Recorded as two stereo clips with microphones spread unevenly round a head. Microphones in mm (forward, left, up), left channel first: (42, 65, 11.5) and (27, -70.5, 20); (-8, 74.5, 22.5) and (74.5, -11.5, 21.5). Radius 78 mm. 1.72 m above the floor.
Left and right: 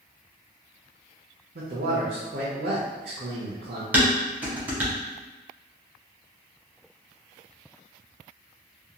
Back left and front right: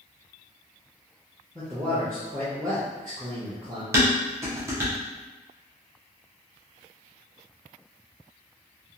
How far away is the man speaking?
About 0.5 m.